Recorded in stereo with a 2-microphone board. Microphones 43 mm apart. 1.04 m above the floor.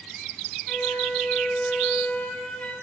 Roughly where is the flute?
Left.